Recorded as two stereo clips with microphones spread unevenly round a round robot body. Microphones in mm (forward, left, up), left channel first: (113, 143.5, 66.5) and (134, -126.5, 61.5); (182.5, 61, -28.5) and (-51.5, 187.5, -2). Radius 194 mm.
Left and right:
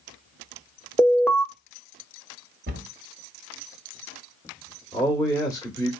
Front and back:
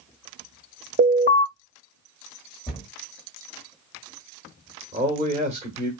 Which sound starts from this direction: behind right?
A cupboard door, at 2.7 s.